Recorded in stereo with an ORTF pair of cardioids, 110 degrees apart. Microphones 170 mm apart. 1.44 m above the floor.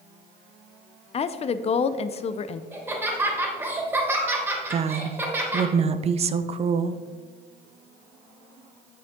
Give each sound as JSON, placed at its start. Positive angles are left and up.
{"t": 1.1, "sound": "a woman speaking", "azimuth_deg": 40, "distance_m": 0.6}
{"t": 2.7, "sound": "laughter", "azimuth_deg": -10, "distance_m": 3.0}
{"t": 4.7, "sound": "a woman speaking", "azimuth_deg": -40, "distance_m": 0.7}